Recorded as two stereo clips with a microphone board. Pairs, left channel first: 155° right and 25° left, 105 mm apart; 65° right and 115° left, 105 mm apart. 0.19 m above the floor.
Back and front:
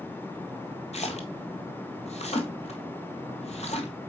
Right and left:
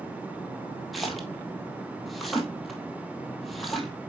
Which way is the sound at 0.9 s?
155° right.